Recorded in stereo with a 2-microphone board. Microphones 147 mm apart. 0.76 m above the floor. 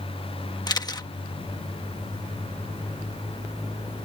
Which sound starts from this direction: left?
A camera shutter, at 0.7 s.